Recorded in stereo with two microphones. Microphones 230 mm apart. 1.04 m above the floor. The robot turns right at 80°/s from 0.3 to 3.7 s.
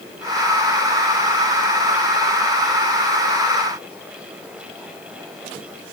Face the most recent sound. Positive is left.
No sound to turn to.